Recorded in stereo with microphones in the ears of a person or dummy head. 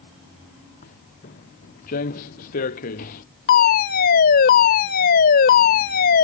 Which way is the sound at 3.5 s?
50° left (ahead or behind).